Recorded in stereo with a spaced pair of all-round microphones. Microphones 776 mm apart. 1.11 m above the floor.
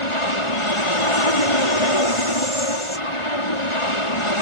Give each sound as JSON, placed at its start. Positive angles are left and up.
{"t": 0.0, "sound": "an aircraft", "side_deg": 40}